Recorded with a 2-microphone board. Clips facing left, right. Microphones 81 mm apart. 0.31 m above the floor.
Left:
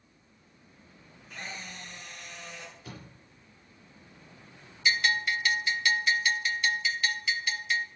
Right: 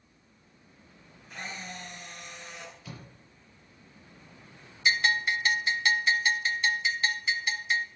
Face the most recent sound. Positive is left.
turn(degrees=-30)  # may be behind; listen again after turning